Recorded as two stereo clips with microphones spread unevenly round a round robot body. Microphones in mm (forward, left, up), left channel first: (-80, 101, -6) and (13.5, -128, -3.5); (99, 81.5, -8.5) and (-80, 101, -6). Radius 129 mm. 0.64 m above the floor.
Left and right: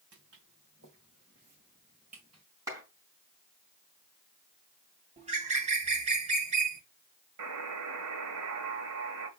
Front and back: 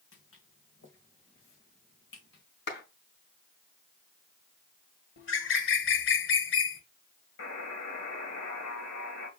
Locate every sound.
0.1 s footsteps: 20° right, 3 m; by 2.4 s straight ahead, 3.5 m
2.7 s a clap: 10° left, 4.5 m
5.2 s a bird: straight ahead, 1.5 m
7.4 s a buzzer: 30° right, 1.9 m